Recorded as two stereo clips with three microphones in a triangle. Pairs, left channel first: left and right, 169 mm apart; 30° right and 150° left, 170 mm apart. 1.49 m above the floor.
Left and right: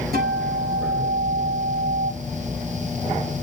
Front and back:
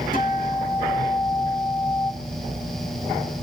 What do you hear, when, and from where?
0.1 s a guitar: 65° right, 7.5 m